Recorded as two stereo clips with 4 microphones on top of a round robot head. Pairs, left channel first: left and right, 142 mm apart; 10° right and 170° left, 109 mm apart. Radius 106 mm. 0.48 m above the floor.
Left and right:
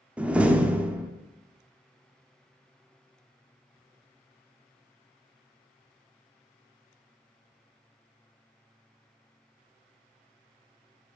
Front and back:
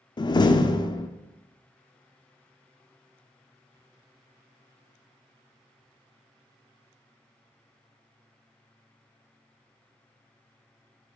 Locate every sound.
0.2 s a door slam: 15° right, 0.7 m